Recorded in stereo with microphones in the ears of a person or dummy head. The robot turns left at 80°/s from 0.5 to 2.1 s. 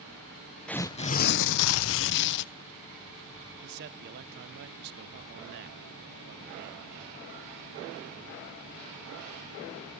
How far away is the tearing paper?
About 0.6 m.